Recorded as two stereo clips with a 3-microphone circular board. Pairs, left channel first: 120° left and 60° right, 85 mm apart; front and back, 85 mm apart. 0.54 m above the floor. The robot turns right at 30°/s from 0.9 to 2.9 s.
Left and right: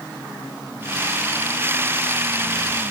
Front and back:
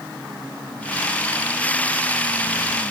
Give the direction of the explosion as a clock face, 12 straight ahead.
No explosion in this recording.